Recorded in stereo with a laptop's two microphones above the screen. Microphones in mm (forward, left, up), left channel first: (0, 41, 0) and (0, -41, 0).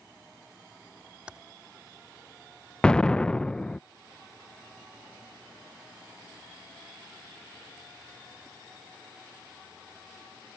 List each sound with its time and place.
1.3 s typing on a keyboard: 10° right (ahead or behind)
2.8 s an explosion: 10° left (ahead or behind)